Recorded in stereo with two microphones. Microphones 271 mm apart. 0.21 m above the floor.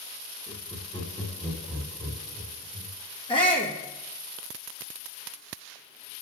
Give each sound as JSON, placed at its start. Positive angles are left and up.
{"t": 0.5, "sound": "laughter", "side_deg": 30, "distance_m": 1.7}
{"t": 3.3, "sound": "a shout", "side_deg": 20, "distance_m": 2.5}